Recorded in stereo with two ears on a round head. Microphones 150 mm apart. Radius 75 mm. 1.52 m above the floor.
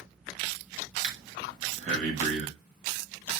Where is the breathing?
50° right (ahead or behind), 2 m.